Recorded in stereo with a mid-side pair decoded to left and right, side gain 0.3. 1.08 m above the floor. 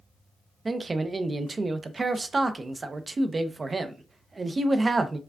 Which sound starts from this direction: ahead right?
A man speaking, at 0.7 s.